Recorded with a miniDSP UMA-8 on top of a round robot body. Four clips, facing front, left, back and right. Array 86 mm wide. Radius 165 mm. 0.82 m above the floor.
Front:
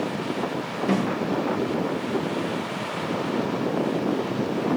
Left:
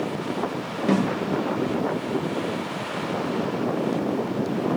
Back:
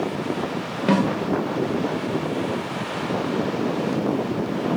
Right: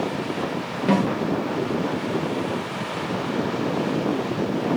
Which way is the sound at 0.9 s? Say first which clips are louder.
Right 1 dB, back 5 dB; 170° right.